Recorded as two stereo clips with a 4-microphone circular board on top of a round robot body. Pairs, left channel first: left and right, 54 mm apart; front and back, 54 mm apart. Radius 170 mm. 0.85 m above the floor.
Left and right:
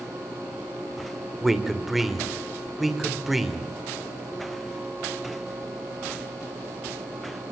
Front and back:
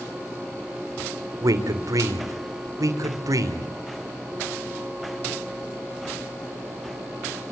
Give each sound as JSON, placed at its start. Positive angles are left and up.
{"t": 1.4, "sound": "a man speaking", "azimuth_deg": -175, "distance_m": 3.5}